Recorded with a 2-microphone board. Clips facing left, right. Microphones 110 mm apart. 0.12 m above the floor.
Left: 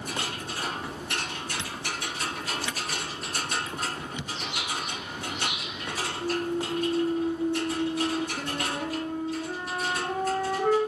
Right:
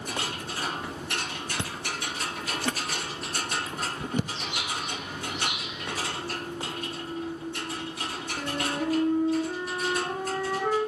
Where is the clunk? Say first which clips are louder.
Left 6 dB; 65° left (ahead or behind), 0.6 m.